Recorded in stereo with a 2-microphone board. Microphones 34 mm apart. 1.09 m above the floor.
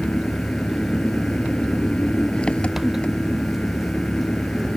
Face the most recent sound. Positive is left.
turn(degrees=35)  # may be behind; listen again after turning